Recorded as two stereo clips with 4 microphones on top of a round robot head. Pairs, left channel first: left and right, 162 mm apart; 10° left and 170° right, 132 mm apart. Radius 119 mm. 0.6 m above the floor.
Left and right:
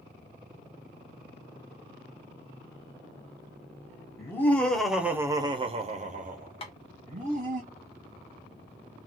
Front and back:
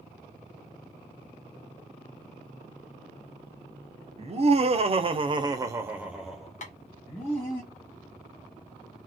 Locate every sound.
4.2 s laughter: 160° left, 1.2 m; by 7.6 s 60° right, 1.7 m
6.6 s tapping: 35° left, 0.8 m